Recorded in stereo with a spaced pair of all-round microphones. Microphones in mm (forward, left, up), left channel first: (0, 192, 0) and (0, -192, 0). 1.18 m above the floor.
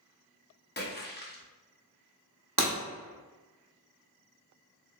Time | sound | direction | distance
0.8 | a splash | 25° left (ahead or behind) | 0.5 m
2.6 | breaking glass | 60° right (ahead or behind) | 1.1 m